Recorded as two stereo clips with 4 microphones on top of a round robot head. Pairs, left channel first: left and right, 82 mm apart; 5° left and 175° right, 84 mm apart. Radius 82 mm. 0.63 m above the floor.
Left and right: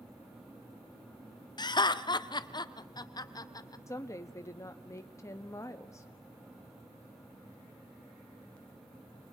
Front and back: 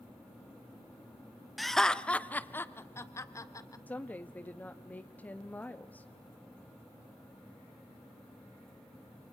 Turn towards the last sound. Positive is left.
turn(degrees=65)